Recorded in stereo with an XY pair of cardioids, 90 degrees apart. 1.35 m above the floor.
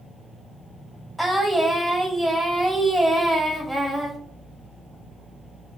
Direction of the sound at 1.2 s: Straight ahead.